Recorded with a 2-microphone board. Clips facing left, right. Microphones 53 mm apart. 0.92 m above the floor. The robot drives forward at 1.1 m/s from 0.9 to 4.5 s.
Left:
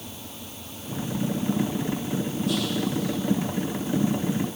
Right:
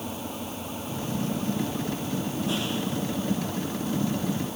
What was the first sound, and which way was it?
An engine running, 30° right (ahead or behind).